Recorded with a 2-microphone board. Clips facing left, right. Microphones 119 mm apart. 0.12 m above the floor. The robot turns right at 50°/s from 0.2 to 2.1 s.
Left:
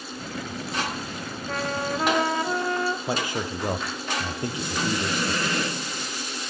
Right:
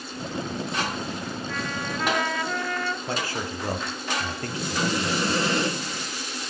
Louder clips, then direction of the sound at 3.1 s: Left 2 dB; 20° left (ahead or behind).